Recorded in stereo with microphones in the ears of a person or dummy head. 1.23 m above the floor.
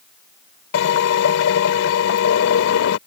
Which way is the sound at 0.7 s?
75° left (ahead or behind).